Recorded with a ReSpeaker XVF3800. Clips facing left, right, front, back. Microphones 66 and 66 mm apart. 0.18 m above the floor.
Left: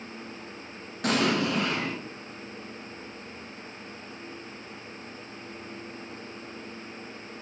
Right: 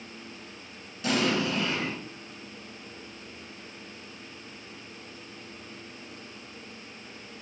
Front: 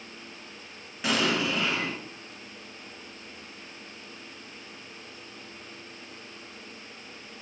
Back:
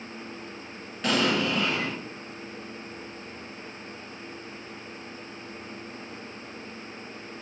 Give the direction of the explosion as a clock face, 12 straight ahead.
9 o'clock.